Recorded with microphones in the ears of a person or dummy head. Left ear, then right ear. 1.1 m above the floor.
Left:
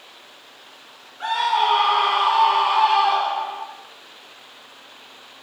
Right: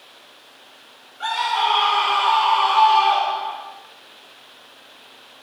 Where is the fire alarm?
I don't hear a fire alarm.